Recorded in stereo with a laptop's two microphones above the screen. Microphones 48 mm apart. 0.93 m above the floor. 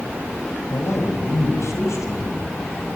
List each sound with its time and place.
0.7 s a man speaking: 85° left, 4 m; by 2.9 s 80° left, 6 m